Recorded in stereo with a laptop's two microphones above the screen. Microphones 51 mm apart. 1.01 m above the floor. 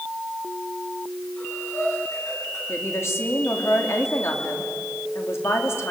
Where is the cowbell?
I don't hear a cowbell.